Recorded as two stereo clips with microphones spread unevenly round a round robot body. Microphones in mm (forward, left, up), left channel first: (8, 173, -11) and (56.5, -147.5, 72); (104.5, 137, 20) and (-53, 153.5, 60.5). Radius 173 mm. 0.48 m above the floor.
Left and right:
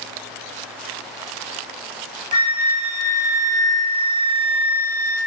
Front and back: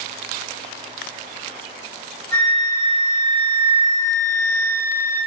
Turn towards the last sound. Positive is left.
turn(degrees=40)